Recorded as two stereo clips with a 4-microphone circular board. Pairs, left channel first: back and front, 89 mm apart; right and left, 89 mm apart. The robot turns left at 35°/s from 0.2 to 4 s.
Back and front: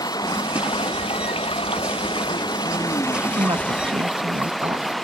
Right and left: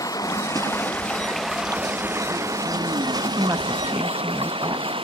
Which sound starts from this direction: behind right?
Running water, at 0.0 s.